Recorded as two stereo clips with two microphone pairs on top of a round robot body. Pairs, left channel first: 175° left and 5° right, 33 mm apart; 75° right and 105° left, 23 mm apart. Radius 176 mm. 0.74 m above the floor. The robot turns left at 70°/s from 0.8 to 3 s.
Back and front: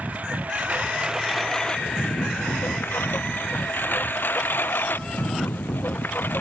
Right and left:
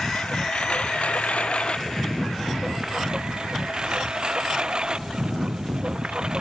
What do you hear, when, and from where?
0.0 s a lawn mower: 55° right; by 6.4 s 150° left